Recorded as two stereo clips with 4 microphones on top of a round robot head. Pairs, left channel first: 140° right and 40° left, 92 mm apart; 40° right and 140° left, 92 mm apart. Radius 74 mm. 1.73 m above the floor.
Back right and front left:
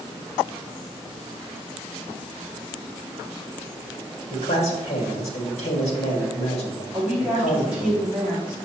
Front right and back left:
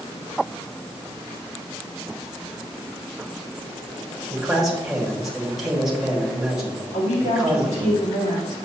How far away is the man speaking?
About 1.9 m.